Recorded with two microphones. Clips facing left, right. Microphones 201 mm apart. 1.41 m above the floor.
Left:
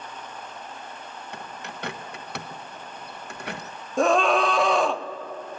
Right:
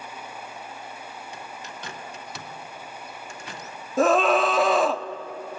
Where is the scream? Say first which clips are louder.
Right 1 dB; centre (ahead or behind), 0.6 m.